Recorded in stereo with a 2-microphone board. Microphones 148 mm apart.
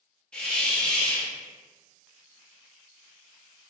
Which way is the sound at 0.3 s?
10° left (ahead or behind).